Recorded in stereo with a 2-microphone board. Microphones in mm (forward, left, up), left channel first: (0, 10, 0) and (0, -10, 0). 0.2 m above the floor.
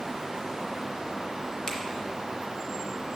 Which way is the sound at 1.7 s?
35° left (ahead or behind).